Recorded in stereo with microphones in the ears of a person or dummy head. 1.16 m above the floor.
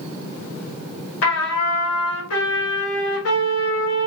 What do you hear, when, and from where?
1.2 s a trumpet: 85° left, 1.2 m